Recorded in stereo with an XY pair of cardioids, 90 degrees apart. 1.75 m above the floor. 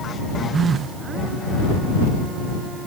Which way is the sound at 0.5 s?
55° right.